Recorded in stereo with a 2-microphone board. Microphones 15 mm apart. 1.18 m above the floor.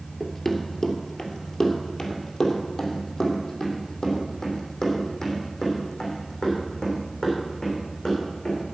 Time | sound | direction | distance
0.2 | running footsteps | 20° left (ahead or behind) | 1.3 m